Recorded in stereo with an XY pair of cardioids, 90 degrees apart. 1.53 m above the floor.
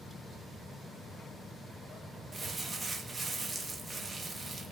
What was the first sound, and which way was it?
Crumpling, 40° right.